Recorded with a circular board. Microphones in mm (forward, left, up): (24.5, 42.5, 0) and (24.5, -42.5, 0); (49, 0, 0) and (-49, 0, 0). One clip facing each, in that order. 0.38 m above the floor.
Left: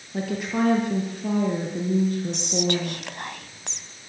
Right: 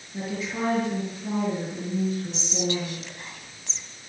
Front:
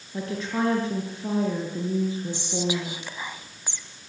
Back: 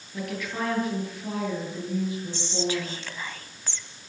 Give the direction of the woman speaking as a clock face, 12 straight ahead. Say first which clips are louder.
Left 5 dB, front 4 dB; 10 o'clock.